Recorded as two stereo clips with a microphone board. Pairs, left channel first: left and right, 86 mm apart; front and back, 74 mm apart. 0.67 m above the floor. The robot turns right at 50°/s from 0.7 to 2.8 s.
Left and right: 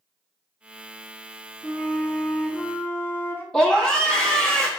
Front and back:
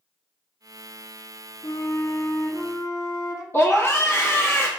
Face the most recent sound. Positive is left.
turn(degrees=15)